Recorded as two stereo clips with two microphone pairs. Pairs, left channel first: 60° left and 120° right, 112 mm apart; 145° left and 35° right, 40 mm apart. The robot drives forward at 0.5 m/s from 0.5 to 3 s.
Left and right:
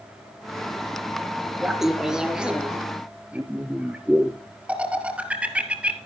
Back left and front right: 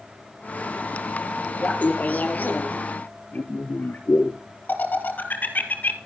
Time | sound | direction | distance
1.6 | laughter | 150° left | 1.7 m